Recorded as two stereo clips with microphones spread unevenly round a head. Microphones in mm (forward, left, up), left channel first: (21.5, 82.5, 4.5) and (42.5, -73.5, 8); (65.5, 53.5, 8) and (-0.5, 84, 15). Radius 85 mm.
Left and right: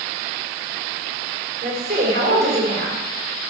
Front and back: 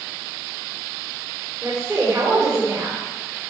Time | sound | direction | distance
1.6 | a woman speaking | 130° right | 4 m